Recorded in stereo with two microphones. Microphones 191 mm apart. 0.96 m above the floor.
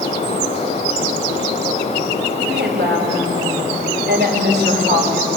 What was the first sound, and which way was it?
A woman speaking, 65° right (ahead or behind).